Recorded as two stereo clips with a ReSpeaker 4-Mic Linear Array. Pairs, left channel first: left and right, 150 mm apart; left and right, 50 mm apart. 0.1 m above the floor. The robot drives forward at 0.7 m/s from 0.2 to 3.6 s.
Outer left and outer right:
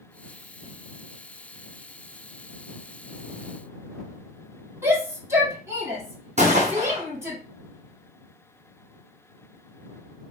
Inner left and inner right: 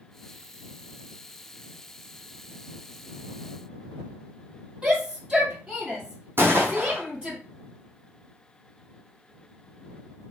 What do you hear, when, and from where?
4.8 s a shout: 20° right (ahead or behind), 3.5 m
6.4 s a gunshot: 50° right (ahead or behind), 1.5 m